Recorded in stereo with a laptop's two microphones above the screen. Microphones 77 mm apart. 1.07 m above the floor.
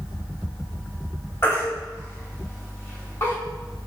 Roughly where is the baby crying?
Left.